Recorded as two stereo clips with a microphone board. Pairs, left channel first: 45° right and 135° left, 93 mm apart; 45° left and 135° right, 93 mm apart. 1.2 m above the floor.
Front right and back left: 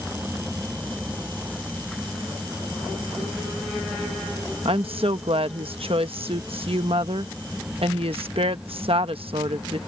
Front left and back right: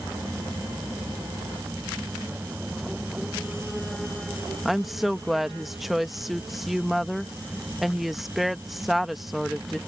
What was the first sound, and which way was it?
A woman speaking, 135° left.